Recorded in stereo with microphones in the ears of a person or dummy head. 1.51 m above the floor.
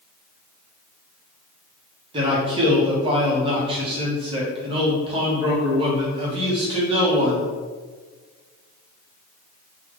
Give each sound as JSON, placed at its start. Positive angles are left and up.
{"t": 2.1, "sound": "a man speaking", "side_deg": -25, "distance_m": 1.3}